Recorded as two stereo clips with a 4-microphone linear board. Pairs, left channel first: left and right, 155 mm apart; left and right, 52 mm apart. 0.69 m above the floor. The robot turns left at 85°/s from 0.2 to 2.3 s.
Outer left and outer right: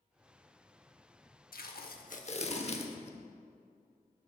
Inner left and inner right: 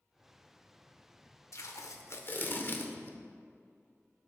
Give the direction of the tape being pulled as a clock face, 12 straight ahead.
8 o'clock.